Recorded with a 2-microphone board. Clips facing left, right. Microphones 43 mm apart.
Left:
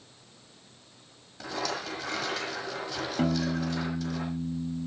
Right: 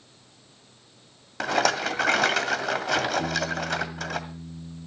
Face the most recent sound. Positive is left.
turn(degrees=70)  # may be behind; listen again after turning